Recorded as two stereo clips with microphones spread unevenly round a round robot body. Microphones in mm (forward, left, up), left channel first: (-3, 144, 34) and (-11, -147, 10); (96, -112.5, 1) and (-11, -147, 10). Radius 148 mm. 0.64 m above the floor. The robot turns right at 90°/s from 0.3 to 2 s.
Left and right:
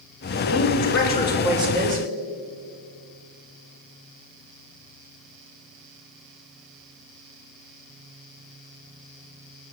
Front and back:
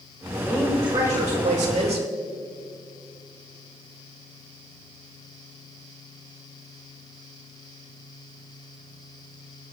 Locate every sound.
0.4 s a woman speaking: 90° left, 3 m; by 2.0 s 130° right, 3 m